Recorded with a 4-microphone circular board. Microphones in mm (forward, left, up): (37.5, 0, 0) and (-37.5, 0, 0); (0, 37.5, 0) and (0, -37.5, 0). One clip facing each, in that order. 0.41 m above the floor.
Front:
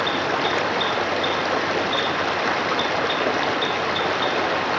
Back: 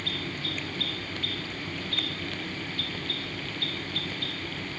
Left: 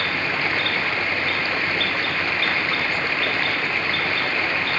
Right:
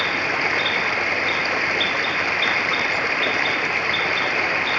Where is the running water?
10° right.